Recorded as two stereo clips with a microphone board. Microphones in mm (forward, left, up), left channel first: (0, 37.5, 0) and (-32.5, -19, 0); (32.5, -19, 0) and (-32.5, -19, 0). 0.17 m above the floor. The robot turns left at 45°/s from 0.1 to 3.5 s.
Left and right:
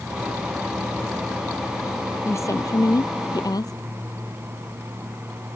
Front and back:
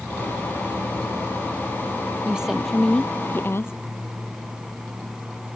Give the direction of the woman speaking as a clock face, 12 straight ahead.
8 o'clock.